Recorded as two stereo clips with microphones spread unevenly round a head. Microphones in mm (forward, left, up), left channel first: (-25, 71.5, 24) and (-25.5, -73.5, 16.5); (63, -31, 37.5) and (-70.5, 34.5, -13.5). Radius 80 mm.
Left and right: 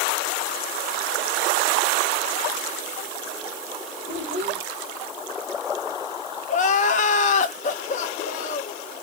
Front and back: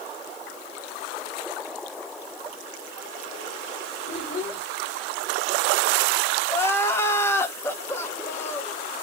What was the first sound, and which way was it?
A child speaking, 40° right.